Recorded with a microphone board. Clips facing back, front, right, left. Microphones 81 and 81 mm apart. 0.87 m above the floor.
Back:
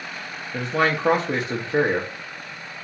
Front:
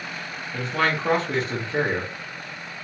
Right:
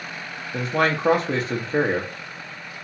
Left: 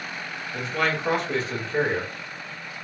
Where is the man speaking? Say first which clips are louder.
Back 2 dB, right 4 dB; 120° right, 0.5 m.